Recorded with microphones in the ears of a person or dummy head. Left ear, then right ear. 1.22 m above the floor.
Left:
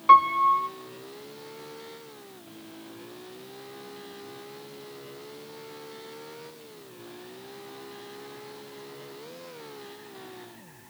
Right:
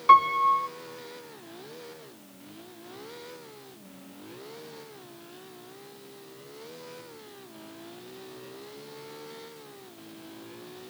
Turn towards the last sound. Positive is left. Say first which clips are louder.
# left 1 dB
turn(degrees=-5)  # may be behind; listen again after turning